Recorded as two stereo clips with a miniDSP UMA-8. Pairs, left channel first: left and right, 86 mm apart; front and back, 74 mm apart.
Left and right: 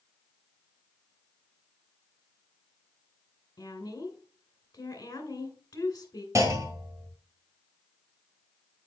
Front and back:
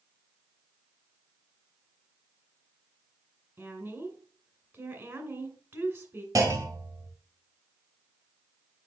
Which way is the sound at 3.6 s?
130° left.